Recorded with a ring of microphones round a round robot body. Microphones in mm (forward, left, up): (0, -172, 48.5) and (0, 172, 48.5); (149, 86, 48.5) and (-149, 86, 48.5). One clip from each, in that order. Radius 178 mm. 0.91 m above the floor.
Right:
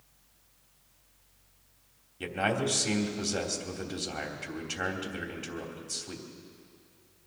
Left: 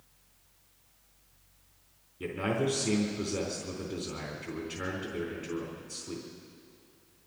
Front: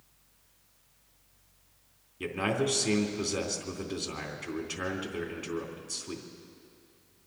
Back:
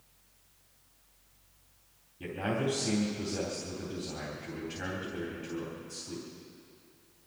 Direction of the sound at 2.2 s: 50° right.